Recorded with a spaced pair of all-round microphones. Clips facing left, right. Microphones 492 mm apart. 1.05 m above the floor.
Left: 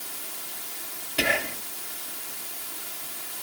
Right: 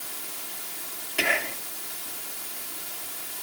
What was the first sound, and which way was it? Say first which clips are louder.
Whispering: left 2 dB; 55° left (ahead or behind).